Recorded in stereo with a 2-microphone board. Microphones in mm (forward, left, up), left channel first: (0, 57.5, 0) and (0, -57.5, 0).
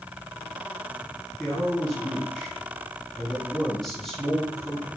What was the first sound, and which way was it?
A man speaking, 5° left (ahead or behind).